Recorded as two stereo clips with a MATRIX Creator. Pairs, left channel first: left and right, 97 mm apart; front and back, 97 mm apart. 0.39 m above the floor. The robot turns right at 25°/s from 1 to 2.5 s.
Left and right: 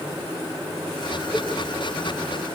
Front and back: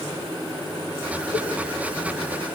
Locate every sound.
1.3 s a cowbell: 150° left, 5.5 m; by 1.5 s 155° left, 5.5 m